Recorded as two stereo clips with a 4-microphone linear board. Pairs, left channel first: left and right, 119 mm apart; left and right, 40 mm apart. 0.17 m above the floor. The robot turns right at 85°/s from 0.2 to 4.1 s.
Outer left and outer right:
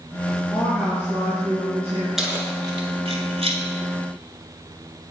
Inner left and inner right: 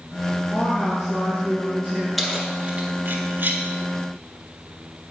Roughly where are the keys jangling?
Centre.